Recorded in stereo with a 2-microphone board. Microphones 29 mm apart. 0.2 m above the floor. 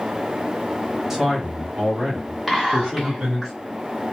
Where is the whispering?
5° right (ahead or behind), 1.4 m.